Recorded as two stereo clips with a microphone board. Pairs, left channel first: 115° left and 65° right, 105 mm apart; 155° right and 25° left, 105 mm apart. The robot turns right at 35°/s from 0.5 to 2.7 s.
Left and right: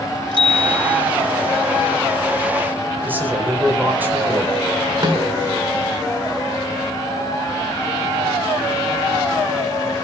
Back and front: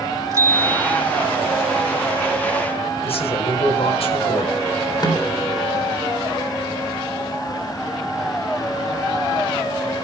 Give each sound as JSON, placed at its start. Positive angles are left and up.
{"t": 0.3, "sound": "a bicycle bell", "azimuth_deg": -35, "distance_m": 4.0}
{"t": 3.0, "sound": "a man speaking", "azimuth_deg": -140, "distance_m": 4.5}
{"t": 5.0, "sound": "a snare drum", "azimuth_deg": -110, "distance_m": 3.5}